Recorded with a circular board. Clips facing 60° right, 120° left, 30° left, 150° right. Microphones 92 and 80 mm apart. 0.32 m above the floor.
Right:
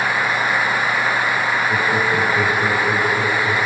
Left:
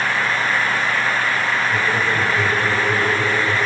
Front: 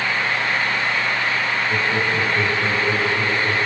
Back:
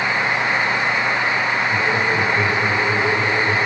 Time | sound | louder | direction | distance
1.7 | laughter | right 1 dB, back 2 dB | 40° right | 4.5 m